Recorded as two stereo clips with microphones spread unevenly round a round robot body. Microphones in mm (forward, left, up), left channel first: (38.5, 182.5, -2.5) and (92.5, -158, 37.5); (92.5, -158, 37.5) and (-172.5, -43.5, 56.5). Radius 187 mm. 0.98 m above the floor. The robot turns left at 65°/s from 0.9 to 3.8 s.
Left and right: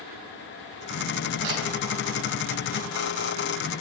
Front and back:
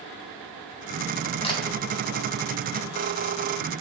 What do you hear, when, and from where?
1.4 s a camera shutter: 95° right, 1.8 m; by 1.6 s 105° right, 1.8 m